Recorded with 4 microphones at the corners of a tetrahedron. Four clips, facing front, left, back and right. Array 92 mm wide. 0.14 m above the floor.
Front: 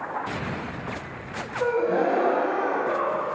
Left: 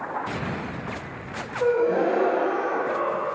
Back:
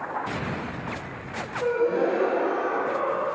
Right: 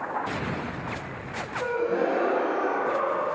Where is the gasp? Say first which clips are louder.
Left 5 dB, front 1 dB; 25° left, 0.8 m.